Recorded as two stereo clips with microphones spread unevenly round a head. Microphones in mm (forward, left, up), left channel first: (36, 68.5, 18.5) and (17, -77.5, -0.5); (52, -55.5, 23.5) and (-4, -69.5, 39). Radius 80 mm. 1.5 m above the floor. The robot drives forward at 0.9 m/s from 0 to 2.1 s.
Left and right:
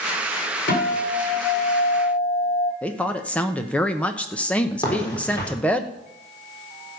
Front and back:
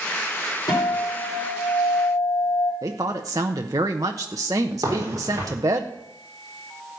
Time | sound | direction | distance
0.7 | a guitar | 55° left | 4.5 m
2.8 | a woman speaking | 160° left | 0.8 m
4.8 | a crack | 150° left | 4 m